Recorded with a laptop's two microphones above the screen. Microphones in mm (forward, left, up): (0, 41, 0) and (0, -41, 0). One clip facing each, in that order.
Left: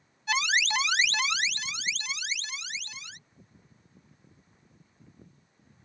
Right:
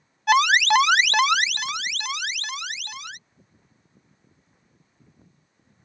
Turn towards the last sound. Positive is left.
turn(degrees=-65)  # may be behind; listen again after turning